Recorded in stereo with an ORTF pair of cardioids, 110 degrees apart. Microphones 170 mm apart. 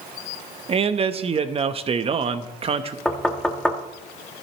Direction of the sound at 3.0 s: 5° left.